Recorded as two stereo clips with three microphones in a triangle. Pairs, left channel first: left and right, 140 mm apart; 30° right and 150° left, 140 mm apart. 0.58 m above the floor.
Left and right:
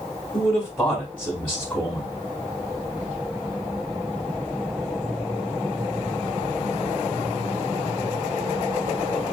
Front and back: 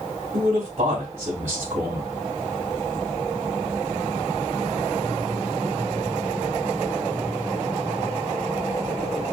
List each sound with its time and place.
0.3 s a man speaking: 165° left, 1.3 m